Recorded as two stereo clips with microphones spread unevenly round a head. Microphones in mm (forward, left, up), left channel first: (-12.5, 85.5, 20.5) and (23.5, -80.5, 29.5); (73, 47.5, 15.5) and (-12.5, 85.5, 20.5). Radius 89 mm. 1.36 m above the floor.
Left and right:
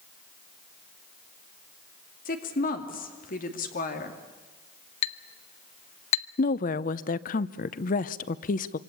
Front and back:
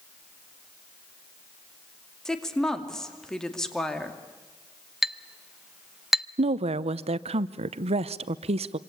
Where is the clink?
75° left, 0.6 m.